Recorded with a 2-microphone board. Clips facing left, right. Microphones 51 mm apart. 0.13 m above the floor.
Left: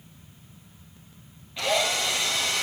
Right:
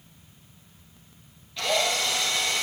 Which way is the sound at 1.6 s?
20° left (ahead or behind).